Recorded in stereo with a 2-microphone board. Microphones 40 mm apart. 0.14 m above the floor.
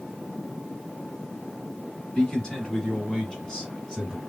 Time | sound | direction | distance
2.1 | a man speaking | 15° left (ahead or behind) | 1.9 m